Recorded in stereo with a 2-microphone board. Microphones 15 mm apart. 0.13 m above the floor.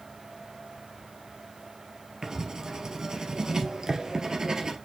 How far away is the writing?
About 2 m.